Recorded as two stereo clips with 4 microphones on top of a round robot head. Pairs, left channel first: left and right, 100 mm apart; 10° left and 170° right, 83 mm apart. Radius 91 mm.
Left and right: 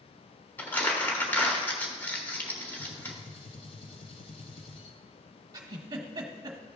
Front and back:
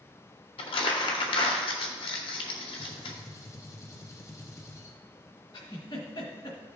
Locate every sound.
0.6 s crumpling: 20° left, 1.3 m
2.8 s a gunshot: 60° left, 1.0 m
5.5 s a giggle: 40° right, 1.1 m